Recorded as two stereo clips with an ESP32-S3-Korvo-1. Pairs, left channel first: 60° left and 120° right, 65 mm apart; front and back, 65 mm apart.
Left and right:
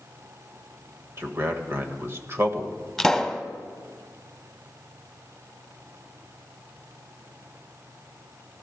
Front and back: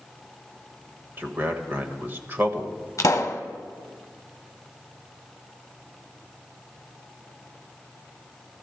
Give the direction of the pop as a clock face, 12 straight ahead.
1 o'clock.